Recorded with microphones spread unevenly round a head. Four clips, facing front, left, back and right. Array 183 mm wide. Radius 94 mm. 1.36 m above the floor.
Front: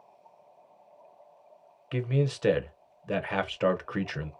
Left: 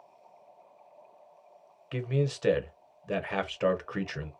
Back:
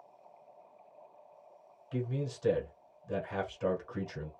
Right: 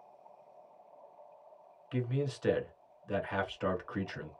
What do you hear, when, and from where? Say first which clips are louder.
1.9 s a man speaking: left 4 dB, front 7 dB; 30° left, 1.1 m